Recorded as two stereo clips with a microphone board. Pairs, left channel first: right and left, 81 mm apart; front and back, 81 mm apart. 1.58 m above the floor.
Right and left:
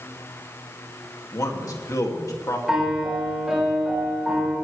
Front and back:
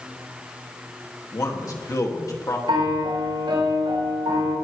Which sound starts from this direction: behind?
A piano, at 2.7 s.